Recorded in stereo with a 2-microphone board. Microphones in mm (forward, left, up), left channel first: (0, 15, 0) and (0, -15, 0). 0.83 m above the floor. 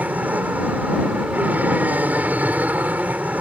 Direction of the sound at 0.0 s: 65° right (ahead or behind).